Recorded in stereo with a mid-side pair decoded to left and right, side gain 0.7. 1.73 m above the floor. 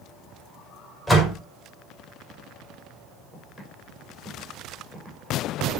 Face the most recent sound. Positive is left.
turn(degrees=-20)